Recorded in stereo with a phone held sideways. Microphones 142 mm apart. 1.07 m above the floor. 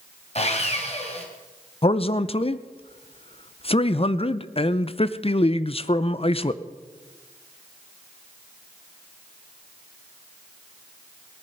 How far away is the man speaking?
About 0.5 m.